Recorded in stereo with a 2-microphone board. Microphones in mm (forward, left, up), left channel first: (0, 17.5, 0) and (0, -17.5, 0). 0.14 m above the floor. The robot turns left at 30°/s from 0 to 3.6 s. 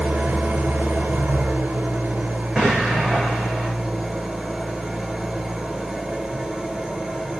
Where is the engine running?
65° right, 1.3 m; by 7.4 s 170° right, 1.3 m.